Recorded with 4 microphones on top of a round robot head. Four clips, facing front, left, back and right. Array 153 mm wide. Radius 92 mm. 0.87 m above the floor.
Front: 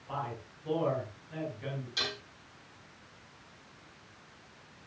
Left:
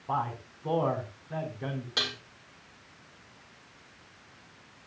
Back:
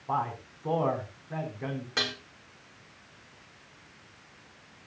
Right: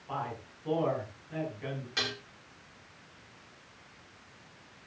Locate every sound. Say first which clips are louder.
0.1 s a man speaking: left 5 dB, back 7 dB; 140° left, 6 m
2.0 s dishes clattering: right 2 dB, back 6 dB; 150° left, 8 m